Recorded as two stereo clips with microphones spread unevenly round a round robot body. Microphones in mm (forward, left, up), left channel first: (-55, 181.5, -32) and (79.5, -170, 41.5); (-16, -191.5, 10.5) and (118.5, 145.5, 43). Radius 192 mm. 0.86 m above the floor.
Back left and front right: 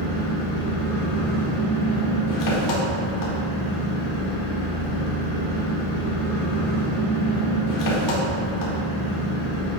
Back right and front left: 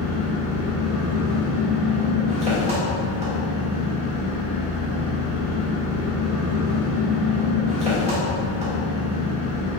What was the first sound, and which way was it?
An engine running, 145° left.